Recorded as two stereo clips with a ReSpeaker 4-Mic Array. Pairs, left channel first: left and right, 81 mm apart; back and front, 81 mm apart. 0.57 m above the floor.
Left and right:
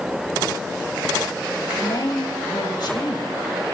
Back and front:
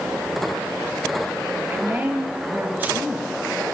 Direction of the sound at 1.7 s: 65° left.